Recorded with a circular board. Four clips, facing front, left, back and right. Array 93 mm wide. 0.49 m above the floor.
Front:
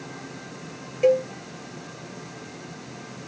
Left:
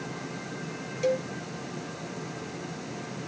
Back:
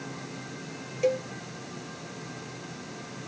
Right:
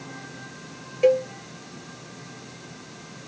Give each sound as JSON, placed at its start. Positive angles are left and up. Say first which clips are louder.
{"t": 1.0, "sound": "a cowbell", "louder": "right 8 dB, front 7 dB", "azimuth_deg": -60, "distance_m": 0.7}